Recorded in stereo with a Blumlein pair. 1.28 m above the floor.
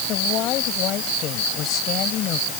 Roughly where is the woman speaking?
Ahead left.